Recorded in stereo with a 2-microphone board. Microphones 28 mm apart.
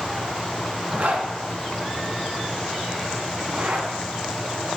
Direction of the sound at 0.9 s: 60° right (ahead or behind).